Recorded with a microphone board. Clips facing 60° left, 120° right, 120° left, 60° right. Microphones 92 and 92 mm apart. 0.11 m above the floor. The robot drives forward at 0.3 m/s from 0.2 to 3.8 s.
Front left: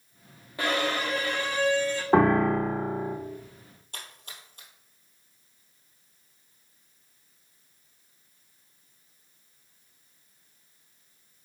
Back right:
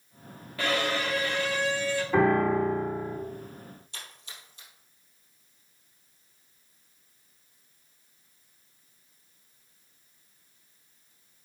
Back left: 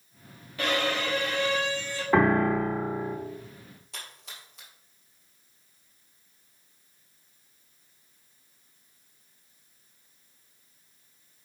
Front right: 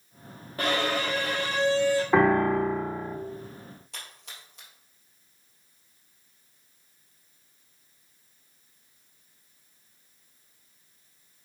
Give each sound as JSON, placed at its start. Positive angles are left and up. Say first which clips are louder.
{"t": 0.6, "sound": "a violin", "louder": "front left 1 dB, front right 1 dB", "azimuth_deg": -10, "distance_m": 2.0}
{"t": 2.1, "sound": "a piano", "louder": "front left 2 dB, back left 1 dB", "azimuth_deg": 30, "distance_m": 2.0}
{"t": 3.9, "sound": "a splash", "louder": "front left 1 dB, even", "azimuth_deg": 30, "distance_m": 2.5}